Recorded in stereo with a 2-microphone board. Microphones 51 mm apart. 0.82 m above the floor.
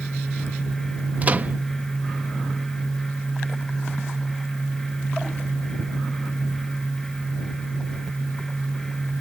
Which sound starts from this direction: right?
A microwave, at 1.2 s.